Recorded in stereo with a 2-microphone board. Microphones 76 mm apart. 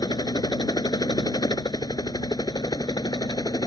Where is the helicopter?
65° left (ahead or behind); by 3.7 s 60° left (ahead or behind).